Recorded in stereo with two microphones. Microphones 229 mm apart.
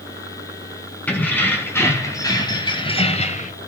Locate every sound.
1.1 s keys jangling: 5° left (ahead or behind), 4.5 m; by 3.5 s 35° left (ahead or behind), 2 m